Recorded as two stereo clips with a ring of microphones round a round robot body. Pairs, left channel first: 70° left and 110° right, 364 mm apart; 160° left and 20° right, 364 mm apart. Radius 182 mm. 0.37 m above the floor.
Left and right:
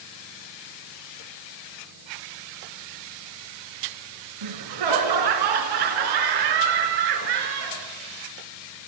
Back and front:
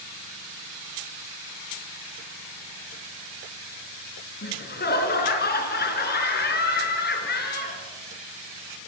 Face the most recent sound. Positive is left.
turn(degrees=-140)